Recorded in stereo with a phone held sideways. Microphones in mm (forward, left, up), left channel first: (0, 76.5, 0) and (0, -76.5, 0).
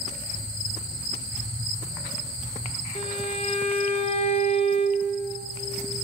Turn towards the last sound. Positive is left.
turn(degrees=40)  # may be behind; listen again after turning